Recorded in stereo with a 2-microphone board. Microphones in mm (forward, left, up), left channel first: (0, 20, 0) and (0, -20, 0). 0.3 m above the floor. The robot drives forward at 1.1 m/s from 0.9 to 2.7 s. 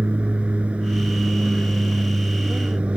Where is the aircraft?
30° right (ahead or behind).